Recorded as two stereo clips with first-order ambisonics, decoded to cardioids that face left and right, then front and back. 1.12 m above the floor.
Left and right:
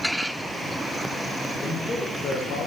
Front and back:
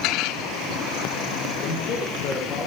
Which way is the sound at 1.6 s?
10° left.